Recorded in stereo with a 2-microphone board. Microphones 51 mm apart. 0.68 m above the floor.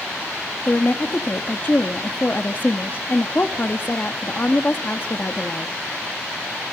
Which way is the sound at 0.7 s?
40° left (ahead or behind).